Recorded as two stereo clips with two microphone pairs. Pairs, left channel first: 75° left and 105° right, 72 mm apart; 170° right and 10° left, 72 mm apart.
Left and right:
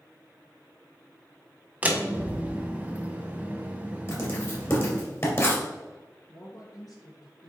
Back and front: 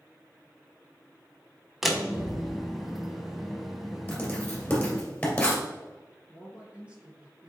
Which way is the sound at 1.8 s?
70° right.